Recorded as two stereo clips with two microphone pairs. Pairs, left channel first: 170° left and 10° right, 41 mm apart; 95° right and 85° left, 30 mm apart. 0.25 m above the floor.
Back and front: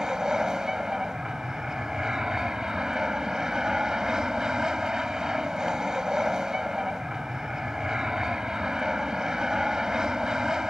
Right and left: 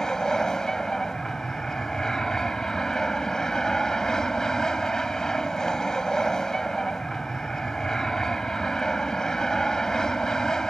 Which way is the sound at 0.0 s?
60° right.